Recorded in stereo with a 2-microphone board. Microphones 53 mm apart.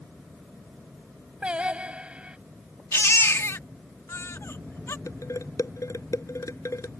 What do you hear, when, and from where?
1.4 s singing: 20° right (ahead or behind)
2.9 s a baby crying: 60° left (ahead or behind)
5.1 s dishes clattering: 75° left (ahead or behind)